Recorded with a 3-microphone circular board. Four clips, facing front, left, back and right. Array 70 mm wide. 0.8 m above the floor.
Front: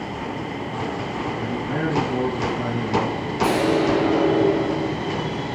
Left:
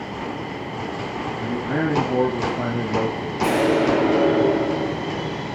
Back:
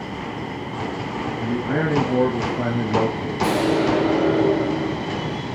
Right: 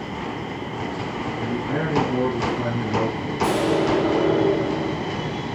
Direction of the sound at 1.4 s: 135° left.